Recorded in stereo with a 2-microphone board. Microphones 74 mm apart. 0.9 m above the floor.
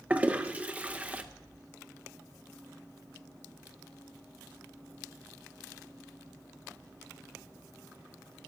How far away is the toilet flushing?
About 0.7 m.